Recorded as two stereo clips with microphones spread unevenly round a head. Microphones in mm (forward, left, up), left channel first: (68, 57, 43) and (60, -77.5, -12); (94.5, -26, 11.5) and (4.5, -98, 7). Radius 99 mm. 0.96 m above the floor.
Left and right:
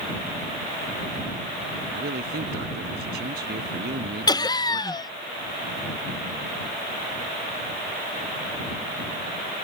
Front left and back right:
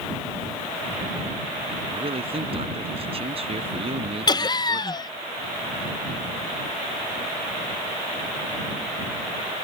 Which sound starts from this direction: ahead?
Laughter, at 4.3 s.